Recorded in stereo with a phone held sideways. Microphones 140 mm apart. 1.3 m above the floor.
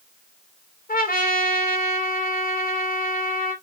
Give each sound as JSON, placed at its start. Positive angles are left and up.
{"t": 0.9, "sound": "a trumpet", "side_deg": 80, "distance_m": 1.9}